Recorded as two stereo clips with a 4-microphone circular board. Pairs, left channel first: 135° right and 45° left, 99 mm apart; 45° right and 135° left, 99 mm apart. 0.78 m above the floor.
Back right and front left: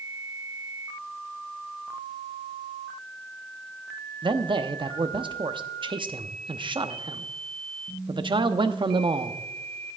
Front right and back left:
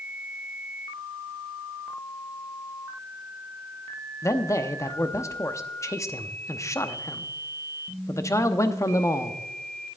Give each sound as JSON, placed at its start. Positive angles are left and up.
{"t": 4.2, "sound": "a man speaking", "azimuth_deg": 15, "distance_m": 0.9}